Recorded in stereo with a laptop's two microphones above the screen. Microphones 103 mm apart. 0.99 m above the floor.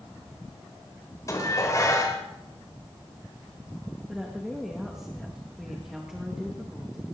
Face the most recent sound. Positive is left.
turn(degrees=-5)  # may be behind; listen again after turning